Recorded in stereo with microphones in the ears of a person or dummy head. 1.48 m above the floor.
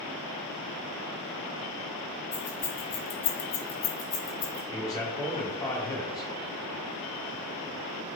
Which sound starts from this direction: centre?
A man speaking, at 4.7 s.